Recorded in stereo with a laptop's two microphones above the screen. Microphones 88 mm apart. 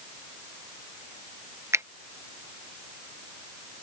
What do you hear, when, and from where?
1.7 s a finger snap: 30° right (ahead or behind)